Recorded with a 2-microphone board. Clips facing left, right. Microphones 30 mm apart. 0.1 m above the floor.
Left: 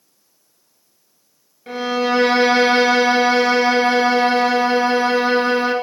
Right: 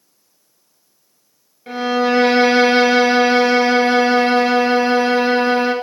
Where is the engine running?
No engine running in this recording.